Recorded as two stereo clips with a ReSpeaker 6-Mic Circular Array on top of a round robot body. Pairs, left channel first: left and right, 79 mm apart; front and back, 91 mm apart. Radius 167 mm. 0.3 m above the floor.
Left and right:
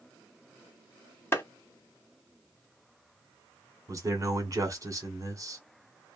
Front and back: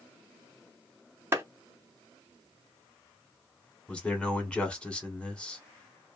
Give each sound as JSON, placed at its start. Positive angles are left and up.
{"t": 1.3, "sound": "a clap", "azimuth_deg": 130, "distance_m": 1.4}
{"t": 3.9, "sound": "a man speaking", "azimuth_deg": -75, "distance_m": 1.6}